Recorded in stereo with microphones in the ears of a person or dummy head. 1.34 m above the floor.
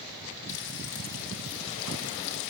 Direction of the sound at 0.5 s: 65° left (ahead or behind).